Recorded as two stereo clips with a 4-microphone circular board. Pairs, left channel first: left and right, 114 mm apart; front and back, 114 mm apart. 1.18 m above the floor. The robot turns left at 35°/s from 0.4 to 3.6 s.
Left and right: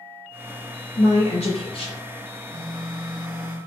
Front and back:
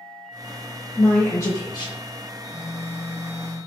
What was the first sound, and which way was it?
A woman speaking, 85° left.